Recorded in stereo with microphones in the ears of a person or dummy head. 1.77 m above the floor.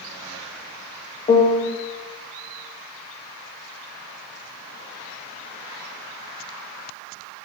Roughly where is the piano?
Left.